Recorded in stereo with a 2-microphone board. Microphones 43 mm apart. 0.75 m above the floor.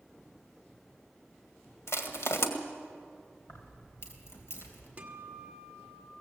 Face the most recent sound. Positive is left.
turn(degrees=-30)  # may be behind; listen again after turning